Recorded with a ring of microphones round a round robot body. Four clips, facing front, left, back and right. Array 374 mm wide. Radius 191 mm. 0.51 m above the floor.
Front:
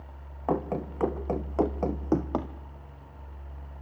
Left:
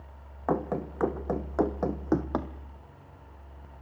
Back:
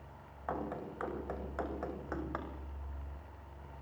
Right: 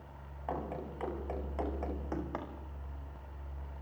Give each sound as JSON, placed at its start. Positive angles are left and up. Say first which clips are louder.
{"t": 0.5, "sound": "running footsteps", "louder": "left 9 dB, front 10 dB", "azimuth_deg": 45, "distance_m": 3.5}